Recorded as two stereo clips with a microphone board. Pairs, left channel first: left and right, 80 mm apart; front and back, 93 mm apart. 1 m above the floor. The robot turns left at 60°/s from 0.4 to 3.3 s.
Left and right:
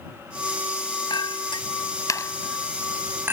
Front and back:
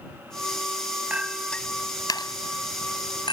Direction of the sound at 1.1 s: 105° left.